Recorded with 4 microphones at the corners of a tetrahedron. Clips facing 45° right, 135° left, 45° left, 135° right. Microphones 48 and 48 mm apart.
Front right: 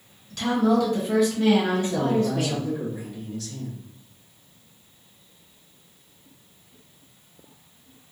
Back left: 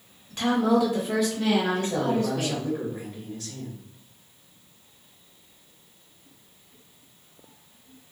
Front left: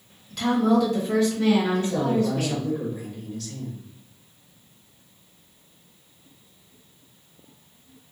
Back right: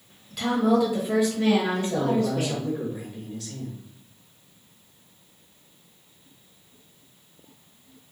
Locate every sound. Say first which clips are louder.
0.3 s a woman speaking: front right 1 dB, front left 1 dB; 140° left, 1.2 m; by 2.7 s 80° right, 1.5 m
1.7 s a man speaking: front right 2 dB, front left 1 dB; 160° left, 1.6 m